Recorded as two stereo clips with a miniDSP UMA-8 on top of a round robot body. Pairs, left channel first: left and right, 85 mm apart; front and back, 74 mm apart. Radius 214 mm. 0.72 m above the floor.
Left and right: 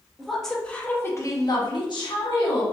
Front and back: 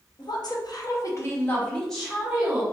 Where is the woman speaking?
Straight ahead, 1.0 m; by 2.6 s 100° left, 1.1 m.